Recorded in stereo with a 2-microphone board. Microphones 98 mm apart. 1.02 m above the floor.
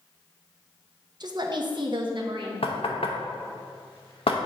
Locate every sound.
1.2 s a woman speaking: 45° right (ahead or behind), 0.7 m; by 2.5 s 55° right (ahead or behind), 1.3 m
2.6 s knocking: 70° left (ahead or behind), 0.8 m